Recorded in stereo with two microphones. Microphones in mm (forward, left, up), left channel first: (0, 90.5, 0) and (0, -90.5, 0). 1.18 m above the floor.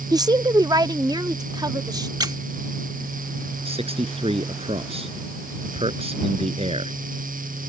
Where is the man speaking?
30° right (ahead or behind).